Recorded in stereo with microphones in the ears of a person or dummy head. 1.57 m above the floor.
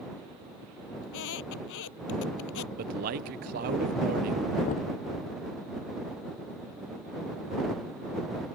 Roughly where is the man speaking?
Right.